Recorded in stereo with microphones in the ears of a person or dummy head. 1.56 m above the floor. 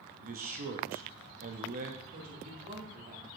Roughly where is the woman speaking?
Right.